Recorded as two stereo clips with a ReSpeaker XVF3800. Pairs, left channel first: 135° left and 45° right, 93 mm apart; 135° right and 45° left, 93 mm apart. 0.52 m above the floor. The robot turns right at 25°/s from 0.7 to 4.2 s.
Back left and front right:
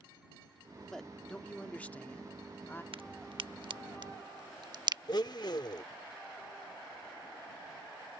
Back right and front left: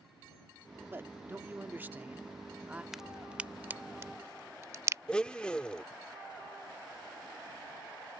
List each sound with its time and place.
0.9 s a man speaking: 55° left; by 2.8 s 105° left
2.9 s a crack: 40° right; by 5.0 s 10° right
5.1 s a blender: 150° left